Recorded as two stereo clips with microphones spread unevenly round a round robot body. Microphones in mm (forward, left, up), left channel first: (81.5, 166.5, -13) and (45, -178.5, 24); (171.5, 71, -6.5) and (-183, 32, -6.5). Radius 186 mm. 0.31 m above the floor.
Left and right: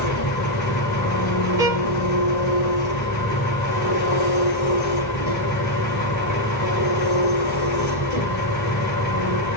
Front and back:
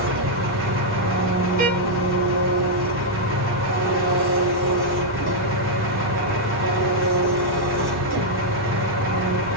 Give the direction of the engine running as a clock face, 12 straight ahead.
8 o'clock.